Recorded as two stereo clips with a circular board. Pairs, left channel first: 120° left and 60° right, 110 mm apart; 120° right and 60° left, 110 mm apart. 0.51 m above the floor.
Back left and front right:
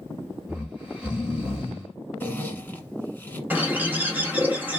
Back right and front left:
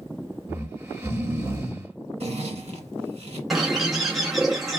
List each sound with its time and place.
0.5 s snoring: 15° left, 1.4 m
2.2 s a zipper: 45° left, 0.9 m
3.5 s a bird: 25° right, 1.3 m